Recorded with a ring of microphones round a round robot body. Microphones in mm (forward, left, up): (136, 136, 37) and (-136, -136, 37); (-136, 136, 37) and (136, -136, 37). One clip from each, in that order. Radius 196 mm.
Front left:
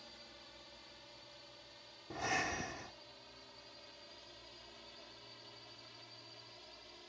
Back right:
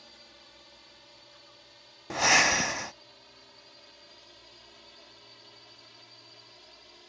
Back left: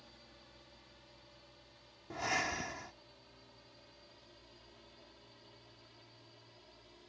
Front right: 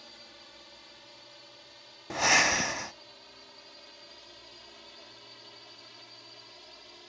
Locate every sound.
0.0 s a drone: 60° right
2.1 s breathing: 100° right